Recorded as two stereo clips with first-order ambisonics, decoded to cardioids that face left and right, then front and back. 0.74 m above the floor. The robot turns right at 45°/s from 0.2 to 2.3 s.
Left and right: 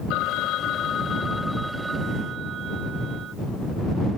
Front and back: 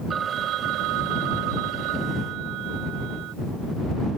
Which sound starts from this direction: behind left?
A phone ringing, at 0.1 s.